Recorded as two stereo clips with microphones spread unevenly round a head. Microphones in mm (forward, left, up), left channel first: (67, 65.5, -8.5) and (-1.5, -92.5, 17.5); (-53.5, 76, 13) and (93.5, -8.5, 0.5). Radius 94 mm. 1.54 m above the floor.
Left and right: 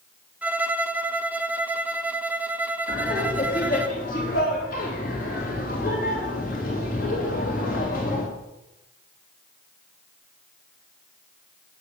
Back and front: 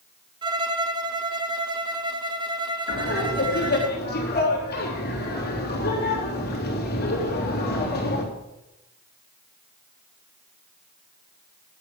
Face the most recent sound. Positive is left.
turn(degrees=115)